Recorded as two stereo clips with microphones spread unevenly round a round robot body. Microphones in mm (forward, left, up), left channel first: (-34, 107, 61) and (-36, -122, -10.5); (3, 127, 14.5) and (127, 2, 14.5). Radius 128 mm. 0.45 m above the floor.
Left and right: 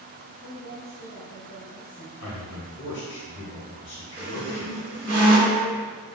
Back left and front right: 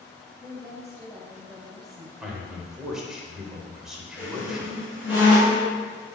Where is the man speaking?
40° left, 2.5 m.